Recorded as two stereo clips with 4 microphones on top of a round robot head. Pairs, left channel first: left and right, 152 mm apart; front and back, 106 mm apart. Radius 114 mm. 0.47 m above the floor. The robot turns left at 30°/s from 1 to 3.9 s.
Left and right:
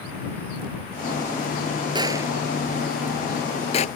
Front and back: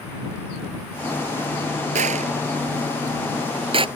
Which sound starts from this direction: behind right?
A gunshot, at 1.9 s.